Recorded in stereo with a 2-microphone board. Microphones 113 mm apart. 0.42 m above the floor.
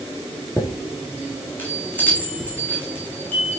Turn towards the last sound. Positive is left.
turn(degrees=15)  # may be behind; listen again after turning